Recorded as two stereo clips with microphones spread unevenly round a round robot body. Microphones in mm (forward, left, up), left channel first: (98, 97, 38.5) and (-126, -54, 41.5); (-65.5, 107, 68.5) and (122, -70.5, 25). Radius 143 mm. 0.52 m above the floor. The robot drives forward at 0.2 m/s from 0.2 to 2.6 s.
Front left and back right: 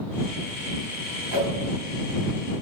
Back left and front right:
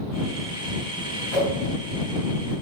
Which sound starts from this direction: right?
A whoosh, at 1.3 s.